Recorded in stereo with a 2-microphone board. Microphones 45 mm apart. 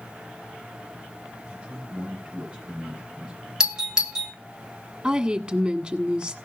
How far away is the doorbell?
About 1.9 m.